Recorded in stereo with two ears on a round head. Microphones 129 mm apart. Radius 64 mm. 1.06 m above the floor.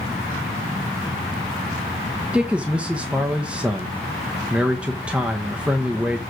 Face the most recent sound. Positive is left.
turn(degrees=-5)  # may be behind; listen again after turning